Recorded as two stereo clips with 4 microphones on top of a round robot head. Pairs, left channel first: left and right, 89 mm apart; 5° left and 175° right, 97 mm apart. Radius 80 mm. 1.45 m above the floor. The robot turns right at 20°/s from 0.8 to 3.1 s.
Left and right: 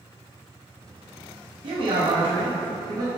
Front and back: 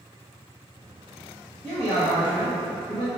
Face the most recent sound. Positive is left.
turn(degrees=-40)